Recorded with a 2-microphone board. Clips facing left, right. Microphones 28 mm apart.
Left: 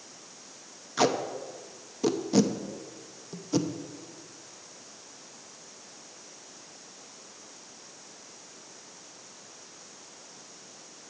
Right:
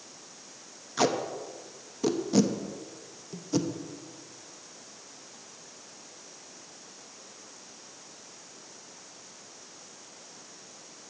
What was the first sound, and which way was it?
Tape being pulled, 5° left (ahead or behind).